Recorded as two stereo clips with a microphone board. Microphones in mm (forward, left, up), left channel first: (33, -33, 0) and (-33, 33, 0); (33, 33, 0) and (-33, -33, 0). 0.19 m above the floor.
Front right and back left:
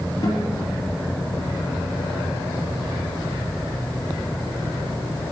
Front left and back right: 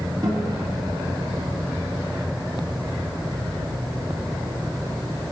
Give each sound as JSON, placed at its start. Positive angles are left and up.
{"t": 0.2, "sound": "a guitar", "azimuth_deg": -95, "distance_m": 4.0}